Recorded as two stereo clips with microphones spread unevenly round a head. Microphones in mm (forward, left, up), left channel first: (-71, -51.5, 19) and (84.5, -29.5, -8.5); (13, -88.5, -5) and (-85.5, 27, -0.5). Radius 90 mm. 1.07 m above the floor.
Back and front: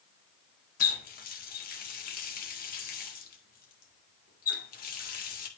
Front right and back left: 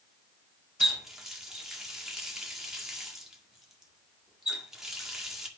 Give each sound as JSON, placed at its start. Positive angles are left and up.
{"t": 0.8, "sound": "a running tap", "azimuth_deg": -140, "distance_m": 1.8}